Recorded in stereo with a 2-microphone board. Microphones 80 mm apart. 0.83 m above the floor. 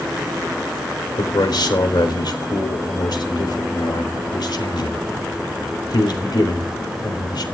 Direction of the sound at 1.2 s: 65° left (ahead or behind).